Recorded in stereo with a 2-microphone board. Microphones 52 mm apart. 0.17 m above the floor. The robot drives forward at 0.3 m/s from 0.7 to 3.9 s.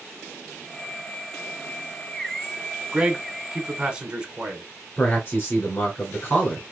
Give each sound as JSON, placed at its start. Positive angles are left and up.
{"t": 2.9, "sound": "a man speaking", "side_deg": -15, "distance_m": 1.1}
{"t": 5.0, "sound": "a man speaking", "side_deg": 40, "distance_m": 2.0}